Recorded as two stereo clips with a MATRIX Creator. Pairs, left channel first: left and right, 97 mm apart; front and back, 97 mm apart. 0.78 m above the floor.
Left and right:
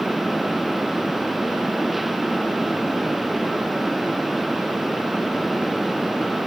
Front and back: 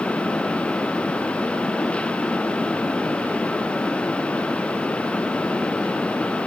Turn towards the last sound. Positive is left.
No sound to turn to.